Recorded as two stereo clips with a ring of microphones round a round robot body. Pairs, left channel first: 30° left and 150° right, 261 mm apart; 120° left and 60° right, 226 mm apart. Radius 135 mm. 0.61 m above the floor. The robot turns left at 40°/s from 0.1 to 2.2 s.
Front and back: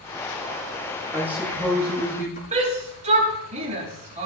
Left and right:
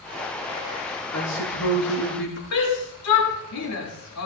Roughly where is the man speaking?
Behind left.